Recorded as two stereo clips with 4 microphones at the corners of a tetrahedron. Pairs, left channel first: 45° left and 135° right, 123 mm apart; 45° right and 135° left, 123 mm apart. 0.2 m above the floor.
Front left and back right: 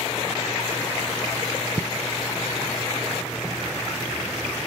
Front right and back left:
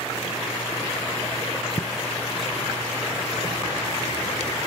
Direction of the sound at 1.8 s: 80° right.